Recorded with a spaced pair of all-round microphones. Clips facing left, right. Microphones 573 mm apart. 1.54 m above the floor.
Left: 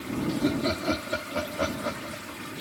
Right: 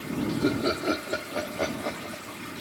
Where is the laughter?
25° left (ahead or behind); by 2.4 s 45° left (ahead or behind).